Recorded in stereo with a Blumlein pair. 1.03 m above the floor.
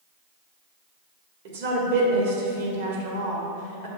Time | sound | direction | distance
1.4 | a woman speaking | 50° right | 1.6 m